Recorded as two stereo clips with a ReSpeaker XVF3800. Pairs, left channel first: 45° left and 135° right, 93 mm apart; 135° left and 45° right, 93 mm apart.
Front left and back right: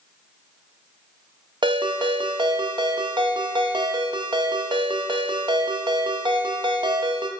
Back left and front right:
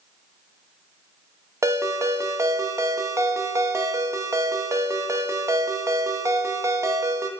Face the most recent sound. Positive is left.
turn(degrees=-100)